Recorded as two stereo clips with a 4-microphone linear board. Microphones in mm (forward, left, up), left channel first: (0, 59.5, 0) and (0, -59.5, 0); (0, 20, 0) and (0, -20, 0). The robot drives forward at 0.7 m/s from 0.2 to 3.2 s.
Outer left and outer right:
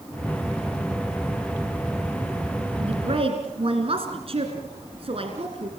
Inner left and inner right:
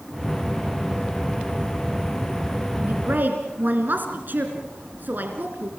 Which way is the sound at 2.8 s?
50° right (ahead or behind).